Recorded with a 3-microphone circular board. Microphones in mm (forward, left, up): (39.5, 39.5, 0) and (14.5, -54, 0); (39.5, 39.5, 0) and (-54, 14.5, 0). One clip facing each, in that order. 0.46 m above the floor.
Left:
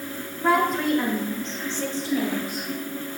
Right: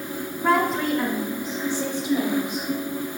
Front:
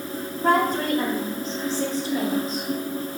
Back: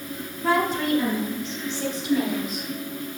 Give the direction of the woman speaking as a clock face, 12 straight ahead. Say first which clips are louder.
Even, front 2 dB; 12 o'clock.